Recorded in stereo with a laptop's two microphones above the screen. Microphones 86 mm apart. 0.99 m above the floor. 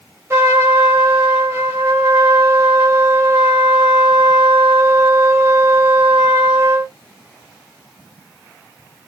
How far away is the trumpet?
About 0.8 m.